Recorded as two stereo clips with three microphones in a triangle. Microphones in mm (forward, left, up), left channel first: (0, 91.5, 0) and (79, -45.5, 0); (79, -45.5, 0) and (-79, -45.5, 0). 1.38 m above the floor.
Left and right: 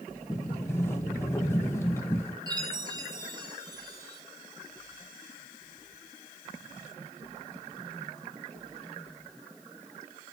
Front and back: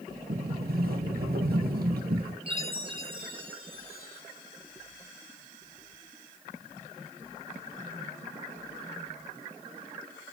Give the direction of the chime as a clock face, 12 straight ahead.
4 o'clock.